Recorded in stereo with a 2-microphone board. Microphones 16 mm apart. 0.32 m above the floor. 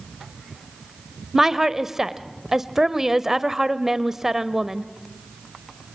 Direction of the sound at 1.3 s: 25° right (ahead or behind).